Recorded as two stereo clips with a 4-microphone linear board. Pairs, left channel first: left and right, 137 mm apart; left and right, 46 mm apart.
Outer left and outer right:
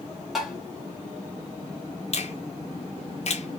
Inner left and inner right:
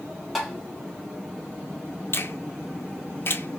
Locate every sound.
0.3 s tapping: centre (ahead or behind), 1.7 m
2.1 s a finger snap: 50° left (ahead or behind), 0.7 m